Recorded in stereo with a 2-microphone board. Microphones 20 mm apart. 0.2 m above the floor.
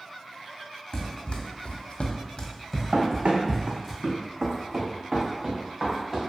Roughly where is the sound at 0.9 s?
Left.